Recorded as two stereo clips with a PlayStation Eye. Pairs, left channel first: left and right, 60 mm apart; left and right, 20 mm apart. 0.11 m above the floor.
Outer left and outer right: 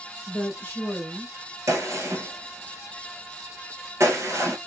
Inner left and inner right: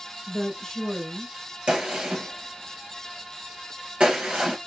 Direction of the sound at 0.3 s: 10° left (ahead or behind).